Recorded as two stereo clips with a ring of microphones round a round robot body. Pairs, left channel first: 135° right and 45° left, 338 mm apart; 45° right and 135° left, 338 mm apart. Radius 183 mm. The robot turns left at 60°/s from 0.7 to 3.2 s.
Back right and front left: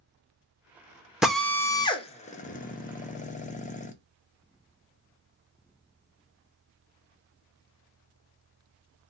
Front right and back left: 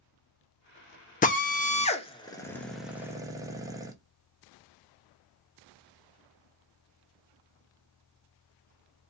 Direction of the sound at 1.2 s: 40° right.